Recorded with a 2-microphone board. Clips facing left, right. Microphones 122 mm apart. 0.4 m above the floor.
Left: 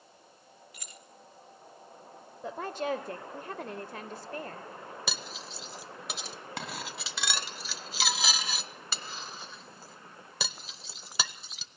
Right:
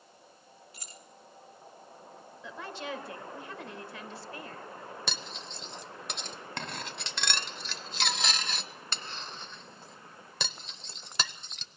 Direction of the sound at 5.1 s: 5° left (ahead or behind).